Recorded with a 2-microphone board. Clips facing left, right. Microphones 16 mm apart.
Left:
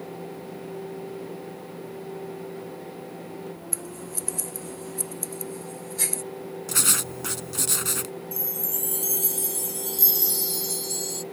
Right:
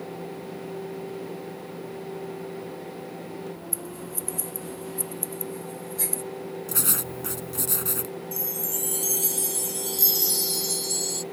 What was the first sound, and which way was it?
Scissors, 40° left (ahead or behind).